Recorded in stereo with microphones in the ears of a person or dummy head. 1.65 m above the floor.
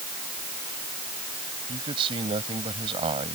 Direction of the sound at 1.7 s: 25° right (ahead or behind).